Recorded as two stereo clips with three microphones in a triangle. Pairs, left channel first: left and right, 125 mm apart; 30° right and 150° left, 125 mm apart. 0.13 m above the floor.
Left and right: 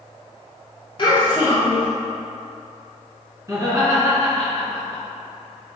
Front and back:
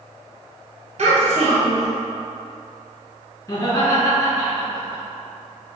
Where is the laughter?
60° right, 1.7 m.